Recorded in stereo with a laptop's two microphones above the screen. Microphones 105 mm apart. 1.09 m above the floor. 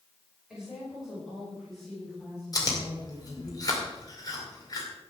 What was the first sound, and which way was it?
A woman speaking, 5° right (ahead or behind).